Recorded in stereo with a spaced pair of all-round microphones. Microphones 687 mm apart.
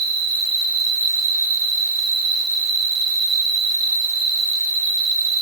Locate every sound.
0.0 s an insect: 40° left (ahead or behind), 5 m